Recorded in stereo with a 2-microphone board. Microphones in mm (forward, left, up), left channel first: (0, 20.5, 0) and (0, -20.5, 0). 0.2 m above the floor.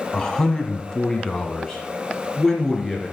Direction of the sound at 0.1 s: 20° left (ahead or behind).